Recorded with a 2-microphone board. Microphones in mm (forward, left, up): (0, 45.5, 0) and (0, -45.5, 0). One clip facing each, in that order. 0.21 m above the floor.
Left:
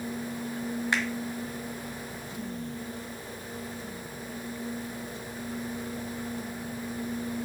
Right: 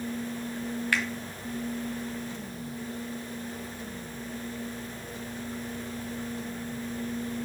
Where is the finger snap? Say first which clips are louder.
Even; 25° left (ahead or behind), 1.4 m.